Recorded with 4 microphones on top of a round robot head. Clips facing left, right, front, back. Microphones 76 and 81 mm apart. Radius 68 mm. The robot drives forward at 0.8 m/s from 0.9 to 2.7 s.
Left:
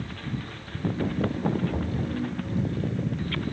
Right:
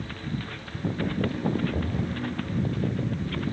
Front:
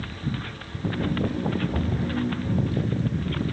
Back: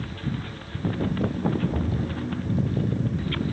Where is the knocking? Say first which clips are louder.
Even, front 1 dB; 80° left, 7 m.